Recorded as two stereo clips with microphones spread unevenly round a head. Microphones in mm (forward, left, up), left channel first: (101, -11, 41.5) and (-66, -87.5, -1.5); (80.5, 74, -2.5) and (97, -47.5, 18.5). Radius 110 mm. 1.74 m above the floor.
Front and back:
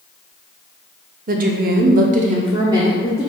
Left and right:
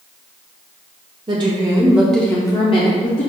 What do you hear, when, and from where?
1.3 s a woman speaking: 110° right, 0.7 m; by 3.3 s 105° left, 0.7 m